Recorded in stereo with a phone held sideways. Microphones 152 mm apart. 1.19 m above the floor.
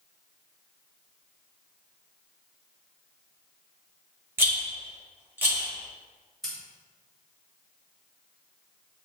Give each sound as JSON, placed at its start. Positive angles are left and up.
{"t": 4.4, "sound": "a rattle", "side_deg": -15, "distance_m": 1.2}
{"t": 6.4, "sound": "scissors", "side_deg": 0, "distance_m": 1.6}